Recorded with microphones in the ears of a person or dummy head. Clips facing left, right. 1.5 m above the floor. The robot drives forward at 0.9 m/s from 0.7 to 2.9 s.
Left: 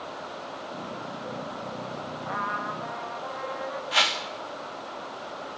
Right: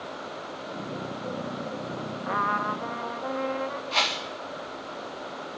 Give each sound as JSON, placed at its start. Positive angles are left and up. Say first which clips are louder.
{"t": 2.2, "sound": "a trumpet", "louder": "right 6 dB", "side_deg": -50, "distance_m": 1.0}
{"t": 3.9, "sound": "a whoosh", "louder": "even", "side_deg": 15, "distance_m": 2.5}